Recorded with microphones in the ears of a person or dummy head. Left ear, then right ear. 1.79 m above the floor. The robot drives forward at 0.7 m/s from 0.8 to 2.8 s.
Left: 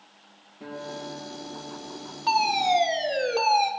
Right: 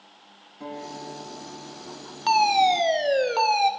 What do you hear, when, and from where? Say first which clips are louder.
0.6 s a guitar: even; 80° right, 7.5 m; by 3.3 s 75° right (ahead or behind), 7.5 m
2.3 s a fire alarm: right 3 dB; 55° right (ahead or behind), 0.7 m; by 3.7 s 40° right (ahead or behind), 0.9 m